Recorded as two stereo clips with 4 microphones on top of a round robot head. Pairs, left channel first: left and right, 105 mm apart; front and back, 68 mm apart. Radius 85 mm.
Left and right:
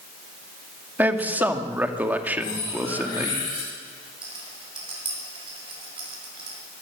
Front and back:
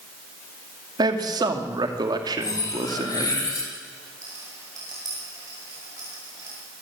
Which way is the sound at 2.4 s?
30° left.